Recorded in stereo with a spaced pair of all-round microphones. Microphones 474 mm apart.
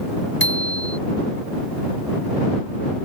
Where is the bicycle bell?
25° left (ahead or behind).